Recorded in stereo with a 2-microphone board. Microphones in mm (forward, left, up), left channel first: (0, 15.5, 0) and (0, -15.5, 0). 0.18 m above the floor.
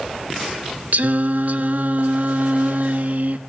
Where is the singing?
60° right (ahead or behind), 0.6 m.